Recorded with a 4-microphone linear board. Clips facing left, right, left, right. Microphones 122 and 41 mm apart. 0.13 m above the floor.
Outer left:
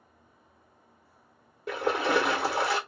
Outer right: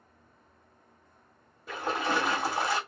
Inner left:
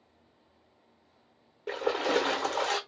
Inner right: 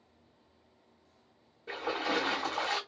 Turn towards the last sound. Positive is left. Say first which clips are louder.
# outer left 4 dB, inner left 5 dB
turn(degrees=75)  # may be behind; listen again after turning